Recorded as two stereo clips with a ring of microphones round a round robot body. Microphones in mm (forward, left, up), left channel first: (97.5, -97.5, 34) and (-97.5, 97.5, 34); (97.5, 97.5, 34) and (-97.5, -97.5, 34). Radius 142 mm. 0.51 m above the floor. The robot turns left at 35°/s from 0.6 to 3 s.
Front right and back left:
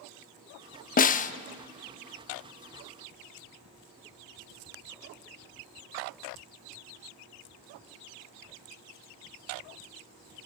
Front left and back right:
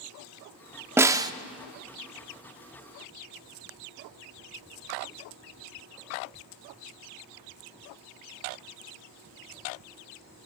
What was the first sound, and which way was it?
A snare drum, 60° right.